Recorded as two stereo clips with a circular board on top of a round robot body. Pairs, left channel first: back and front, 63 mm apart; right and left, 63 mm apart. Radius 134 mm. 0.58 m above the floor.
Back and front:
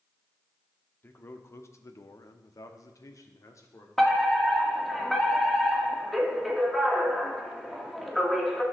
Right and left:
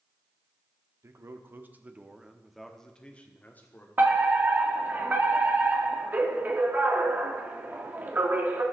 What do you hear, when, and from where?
1.0 s a man speaking: 125° left, 1.4 m; by 3.9 s 145° right, 1.7 m
4.0 s a fire alarm: 90° left, 2.5 m